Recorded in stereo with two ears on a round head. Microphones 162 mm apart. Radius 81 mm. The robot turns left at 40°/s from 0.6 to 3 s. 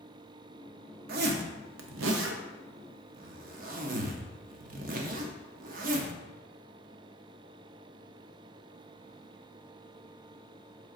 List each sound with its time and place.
1.1 s a zipper: 50° right (ahead or behind), 0.6 m